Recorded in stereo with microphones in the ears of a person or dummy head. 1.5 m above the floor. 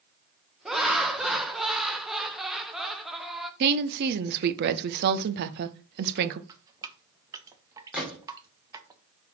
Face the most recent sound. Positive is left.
turn(degrees=0)  # may be behind; listen again after turning